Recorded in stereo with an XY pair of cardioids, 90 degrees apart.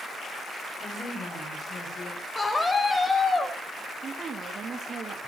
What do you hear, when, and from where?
0.8 s a woman speaking: 40° left, 7 m
2.4 s a scream: 30° left, 6.5 m
4.0 s a woman speaking: 45° right, 2.5 m